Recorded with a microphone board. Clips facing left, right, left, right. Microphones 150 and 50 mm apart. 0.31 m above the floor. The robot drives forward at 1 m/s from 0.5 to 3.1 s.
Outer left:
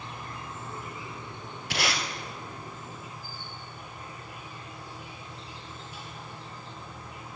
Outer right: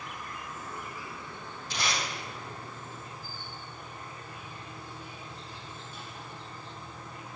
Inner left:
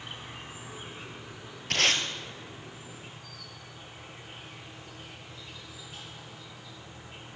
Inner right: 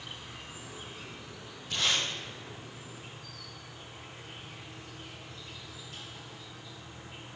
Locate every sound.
0.0 s an insect: 30° left (ahead or behind), 1.4 m; by 7.4 s 10° left (ahead or behind), 4 m
1.7 s tape being pulled: 85° left, 1.2 m; by 2.0 s 75° left (ahead or behind), 1.2 m